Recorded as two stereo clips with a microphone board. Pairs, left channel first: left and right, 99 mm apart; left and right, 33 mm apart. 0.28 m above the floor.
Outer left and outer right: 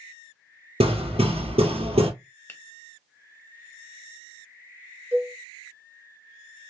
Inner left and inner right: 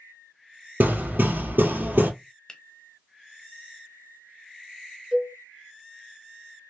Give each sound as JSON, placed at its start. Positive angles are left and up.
{"t": 0.8, "sound": "hammering", "side_deg": -85, "distance_m": 1.7}
{"t": 2.5, "sound": "a finger snap", "side_deg": 20, "distance_m": 0.9}
{"t": 5.1, "sound": "a cowbell", "side_deg": -25, "distance_m": 1.7}